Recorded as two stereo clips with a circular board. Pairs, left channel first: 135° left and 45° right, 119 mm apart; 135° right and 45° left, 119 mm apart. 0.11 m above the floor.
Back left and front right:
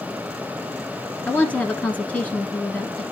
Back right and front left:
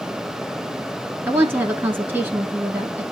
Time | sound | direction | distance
1.3 | a woman speaking | 80° left | 1.1 m